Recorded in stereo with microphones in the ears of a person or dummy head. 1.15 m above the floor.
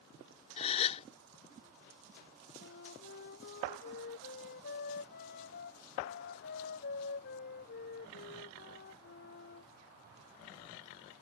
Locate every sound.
0.6 s a gasp: 40° left (ahead or behind)
2.6 s a flute: 50° left (ahead or behind)